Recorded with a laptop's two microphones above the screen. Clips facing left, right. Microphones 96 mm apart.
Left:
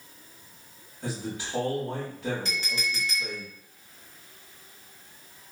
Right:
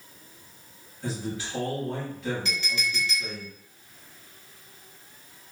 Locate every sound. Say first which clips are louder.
1.0 s a man speaking: right 1 dB; 65° left (ahead or behind), 1.9 m
2.5 s a clink: right 1 dB; 40° left (ahead or behind), 1.3 m